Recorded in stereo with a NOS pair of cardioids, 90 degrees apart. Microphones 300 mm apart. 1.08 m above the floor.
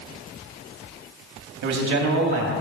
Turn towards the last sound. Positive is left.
turn(degrees=-70)